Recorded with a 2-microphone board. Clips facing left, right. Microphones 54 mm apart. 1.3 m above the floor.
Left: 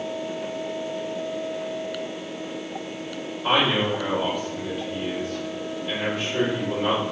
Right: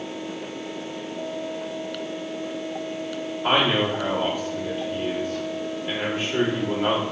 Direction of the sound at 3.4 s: 25° right (ahead or behind).